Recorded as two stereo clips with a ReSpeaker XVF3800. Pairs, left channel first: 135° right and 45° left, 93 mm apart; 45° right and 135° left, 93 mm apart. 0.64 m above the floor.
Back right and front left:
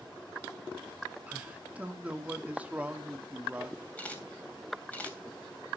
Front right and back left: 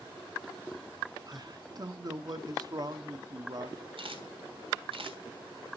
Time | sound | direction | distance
1.3 | a man speaking | 115° left | 1.2 m
4.0 | a camera shutter | 150° left | 2.5 m